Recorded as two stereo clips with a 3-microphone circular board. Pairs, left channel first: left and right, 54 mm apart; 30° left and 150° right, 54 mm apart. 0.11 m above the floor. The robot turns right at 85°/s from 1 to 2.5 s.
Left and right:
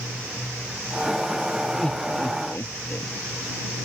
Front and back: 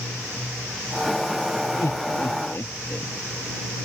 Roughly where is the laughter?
Ahead.